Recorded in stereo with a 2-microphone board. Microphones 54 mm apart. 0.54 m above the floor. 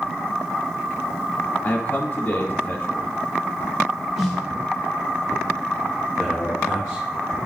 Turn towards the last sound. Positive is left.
turn(degrees=-20)  # may be behind; listen again after turning